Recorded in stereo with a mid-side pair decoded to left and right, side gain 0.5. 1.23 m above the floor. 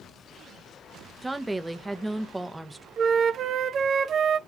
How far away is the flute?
About 0.5 m.